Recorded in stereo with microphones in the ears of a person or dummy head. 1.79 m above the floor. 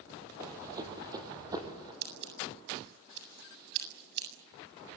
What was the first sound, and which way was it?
Running footsteps, 20° right (ahead or behind).